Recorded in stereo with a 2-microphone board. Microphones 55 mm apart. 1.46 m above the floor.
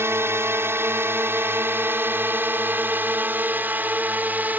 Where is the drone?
50° right (ahead or behind); by 4.6 s 35° right (ahead or behind).